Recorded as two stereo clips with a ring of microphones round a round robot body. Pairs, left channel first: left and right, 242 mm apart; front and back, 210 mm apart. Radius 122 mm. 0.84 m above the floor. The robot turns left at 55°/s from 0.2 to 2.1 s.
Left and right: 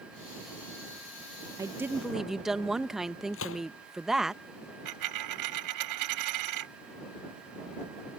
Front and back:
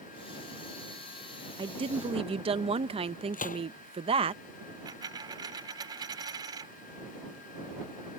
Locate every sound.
1.6 s a woman speaking: 145° right; by 4.3 s 175° right
3.3 s a gunshot: 50° left
4.8 s a dropped coin: 105° right